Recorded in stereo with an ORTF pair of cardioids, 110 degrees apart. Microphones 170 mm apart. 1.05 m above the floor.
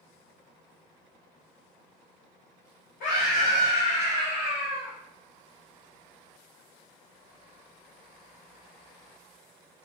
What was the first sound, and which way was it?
A scream, 65° left.